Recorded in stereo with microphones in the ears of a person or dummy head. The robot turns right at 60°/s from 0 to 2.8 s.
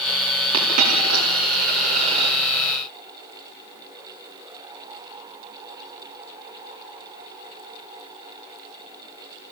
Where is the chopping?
No chopping in this recording.